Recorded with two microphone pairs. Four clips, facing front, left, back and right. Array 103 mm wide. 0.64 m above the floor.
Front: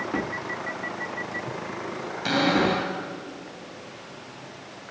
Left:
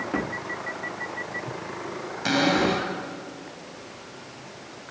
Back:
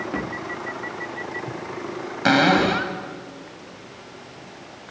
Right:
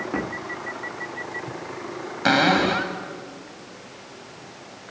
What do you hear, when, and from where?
2.2 s a cupboard door: 140° right, 3.5 m